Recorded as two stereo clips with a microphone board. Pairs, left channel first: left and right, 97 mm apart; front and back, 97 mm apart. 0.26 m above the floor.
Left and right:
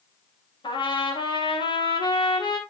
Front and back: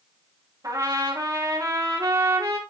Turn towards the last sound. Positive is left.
turn(degrees=130)